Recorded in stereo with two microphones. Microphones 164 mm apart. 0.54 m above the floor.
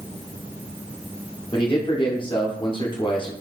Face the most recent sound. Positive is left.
turn(degrees=30)  # may be behind; listen again after turning